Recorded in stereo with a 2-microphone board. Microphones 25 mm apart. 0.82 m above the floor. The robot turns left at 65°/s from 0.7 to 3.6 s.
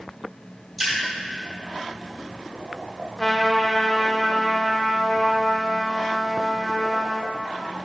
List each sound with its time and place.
0.8 s a splash: centre (ahead or behind), 2.5 m; by 0.9 s 10° right (ahead or behind), 2.5 m
3.2 s a trumpet: 20° left (ahead or behind), 0.7 m; by 7.3 s 15° left (ahead or behind), 0.7 m